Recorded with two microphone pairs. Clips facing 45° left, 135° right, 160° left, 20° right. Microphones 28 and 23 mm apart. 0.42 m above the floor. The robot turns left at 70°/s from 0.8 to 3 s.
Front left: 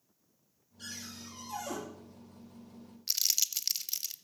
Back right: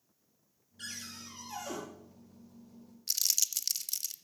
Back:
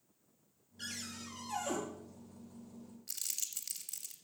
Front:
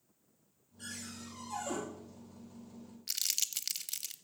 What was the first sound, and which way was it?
A cupboard door, 155° right.